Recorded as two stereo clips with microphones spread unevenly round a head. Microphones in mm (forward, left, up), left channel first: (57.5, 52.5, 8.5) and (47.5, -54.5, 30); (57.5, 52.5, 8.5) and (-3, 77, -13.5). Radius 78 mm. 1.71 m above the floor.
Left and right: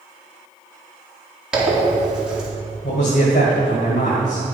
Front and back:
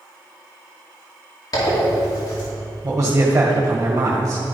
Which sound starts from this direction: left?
A man speaking, at 2.8 s.